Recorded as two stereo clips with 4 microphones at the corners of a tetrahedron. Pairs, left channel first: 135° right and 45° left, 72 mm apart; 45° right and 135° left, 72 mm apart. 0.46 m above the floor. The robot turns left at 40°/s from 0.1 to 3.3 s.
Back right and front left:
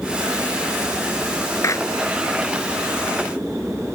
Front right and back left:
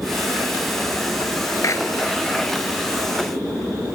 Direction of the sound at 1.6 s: 90° right.